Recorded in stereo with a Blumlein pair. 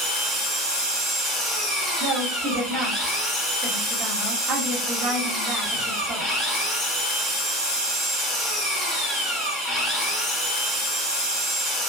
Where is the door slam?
No door slam in this recording.